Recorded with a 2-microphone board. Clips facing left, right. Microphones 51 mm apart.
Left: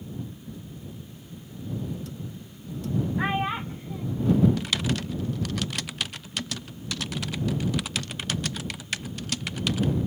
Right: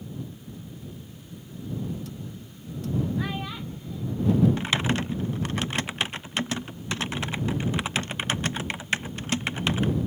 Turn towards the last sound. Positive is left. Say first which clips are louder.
# right 2 dB
turn(degrees=-30)  # may be behind; listen again after turning